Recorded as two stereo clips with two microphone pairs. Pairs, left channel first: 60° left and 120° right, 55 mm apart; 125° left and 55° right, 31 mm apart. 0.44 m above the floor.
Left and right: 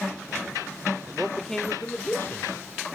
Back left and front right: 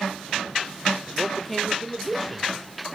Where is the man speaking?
150° right, 0.8 m; by 2.5 s 35° left, 1.1 m.